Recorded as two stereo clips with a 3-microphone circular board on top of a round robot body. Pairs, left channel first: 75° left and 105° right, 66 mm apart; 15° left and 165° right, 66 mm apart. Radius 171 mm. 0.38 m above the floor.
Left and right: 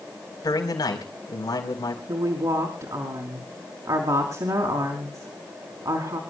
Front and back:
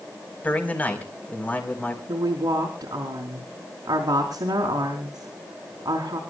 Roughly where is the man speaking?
Left.